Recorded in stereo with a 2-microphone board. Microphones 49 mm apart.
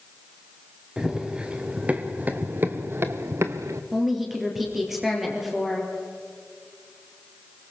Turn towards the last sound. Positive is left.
turn(degrees=-5)  # may be behind; listen again after turning